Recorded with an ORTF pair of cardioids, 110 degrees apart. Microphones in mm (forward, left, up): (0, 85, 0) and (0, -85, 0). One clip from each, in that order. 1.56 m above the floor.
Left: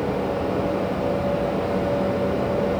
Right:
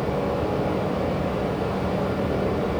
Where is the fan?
10° right, 1.2 m.